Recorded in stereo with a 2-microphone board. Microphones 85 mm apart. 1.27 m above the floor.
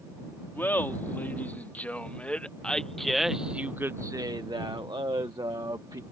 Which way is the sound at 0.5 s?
25° left (ahead or behind).